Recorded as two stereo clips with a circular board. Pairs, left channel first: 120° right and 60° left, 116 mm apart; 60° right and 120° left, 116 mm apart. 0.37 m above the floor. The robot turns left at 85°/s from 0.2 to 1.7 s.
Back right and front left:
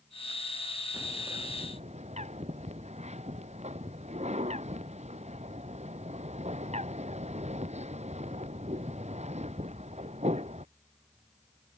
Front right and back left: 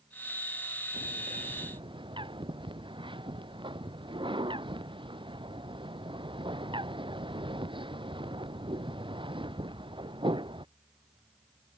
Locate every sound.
0.9 s a bird: 140° left; by 10.7 s 75° left